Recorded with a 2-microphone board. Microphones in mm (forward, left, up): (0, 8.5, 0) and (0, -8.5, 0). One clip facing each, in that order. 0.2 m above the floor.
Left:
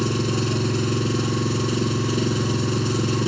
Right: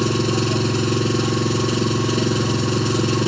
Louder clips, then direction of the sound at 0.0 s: Right 3 dB; 15° right (ahead or behind).